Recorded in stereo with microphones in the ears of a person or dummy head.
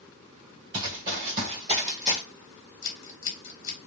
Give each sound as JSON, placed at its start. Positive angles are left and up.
{"t": 0.7, "sound": "running footsteps", "side_deg": -25, "distance_m": 1.2}
{"t": 2.8, "sound": "scissors", "side_deg": 65, "distance_m": 1.6}